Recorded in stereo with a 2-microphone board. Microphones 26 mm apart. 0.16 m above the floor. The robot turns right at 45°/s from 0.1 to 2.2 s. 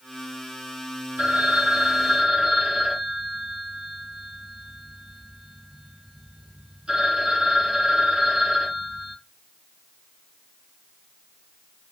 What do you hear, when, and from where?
1.2 s a phone ringing: 90° right, 3.5 m; by 9.2 s 40° right, 3.5 m